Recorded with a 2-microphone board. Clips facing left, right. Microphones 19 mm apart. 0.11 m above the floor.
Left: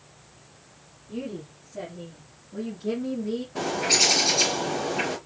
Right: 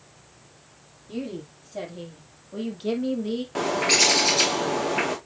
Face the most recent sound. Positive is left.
turn(degrees=-65)  # may be behind; listen again after turning